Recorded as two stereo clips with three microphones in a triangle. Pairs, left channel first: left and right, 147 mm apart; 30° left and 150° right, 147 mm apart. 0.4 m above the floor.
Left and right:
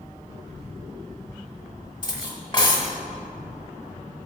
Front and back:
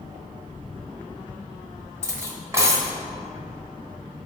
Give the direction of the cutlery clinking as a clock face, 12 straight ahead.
7 o'clock.